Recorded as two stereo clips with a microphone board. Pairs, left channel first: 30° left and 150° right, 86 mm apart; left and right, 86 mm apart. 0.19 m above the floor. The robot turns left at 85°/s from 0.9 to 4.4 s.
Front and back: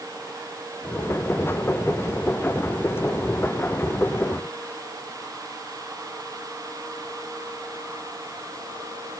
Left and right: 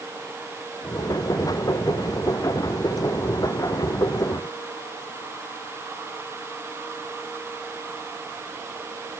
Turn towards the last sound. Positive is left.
No sound to turn to.